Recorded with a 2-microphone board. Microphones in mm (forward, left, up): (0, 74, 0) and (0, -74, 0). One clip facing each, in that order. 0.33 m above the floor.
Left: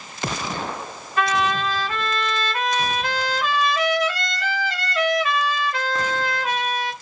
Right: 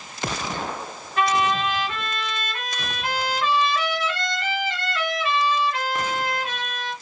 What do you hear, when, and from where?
1.2 s a trumpet: 40° left (ahead or behind), 3 m